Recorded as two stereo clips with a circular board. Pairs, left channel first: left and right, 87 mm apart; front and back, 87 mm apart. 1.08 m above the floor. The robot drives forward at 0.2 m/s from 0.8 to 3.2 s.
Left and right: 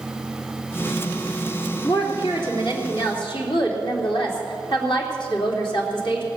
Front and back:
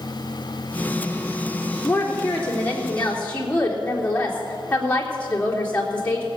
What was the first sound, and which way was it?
A woman speaking, 70° left.